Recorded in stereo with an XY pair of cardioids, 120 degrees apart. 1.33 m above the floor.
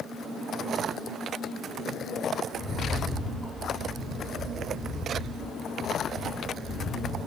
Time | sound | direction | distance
2.5 | a rattle | 25° left | 0.8 m